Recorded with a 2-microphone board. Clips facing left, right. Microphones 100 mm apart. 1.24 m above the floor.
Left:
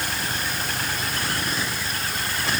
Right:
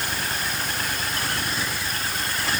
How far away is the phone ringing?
No phone ringing in this recording.